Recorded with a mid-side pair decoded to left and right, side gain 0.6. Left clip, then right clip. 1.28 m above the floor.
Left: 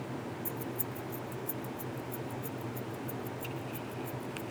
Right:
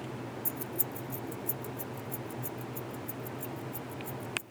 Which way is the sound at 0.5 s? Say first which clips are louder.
Even; 35° right.